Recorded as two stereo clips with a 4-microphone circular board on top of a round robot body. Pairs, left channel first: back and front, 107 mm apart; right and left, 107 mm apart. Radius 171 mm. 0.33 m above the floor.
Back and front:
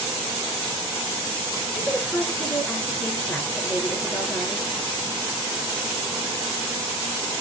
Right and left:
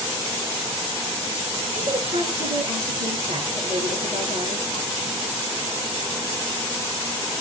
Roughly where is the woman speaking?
Left.